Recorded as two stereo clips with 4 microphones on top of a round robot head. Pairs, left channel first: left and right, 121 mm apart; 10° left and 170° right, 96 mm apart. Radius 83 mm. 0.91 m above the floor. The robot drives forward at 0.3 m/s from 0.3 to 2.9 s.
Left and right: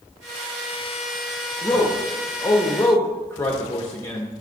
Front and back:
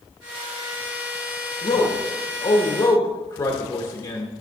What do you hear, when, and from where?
1.6 s a man speaking: 20° left, 1.5 m; by 4.3 s 30° left, 1.2 m